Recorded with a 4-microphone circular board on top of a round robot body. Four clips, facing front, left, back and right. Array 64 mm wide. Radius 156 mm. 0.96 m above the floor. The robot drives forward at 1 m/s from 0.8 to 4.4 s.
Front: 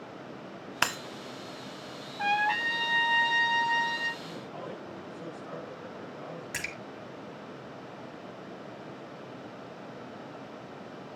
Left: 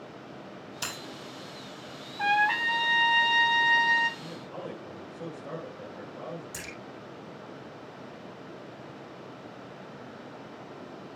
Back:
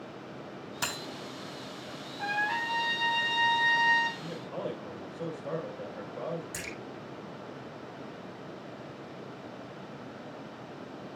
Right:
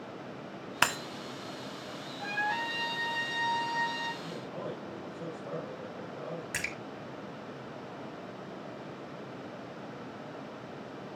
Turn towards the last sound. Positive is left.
turn(degrees=-60)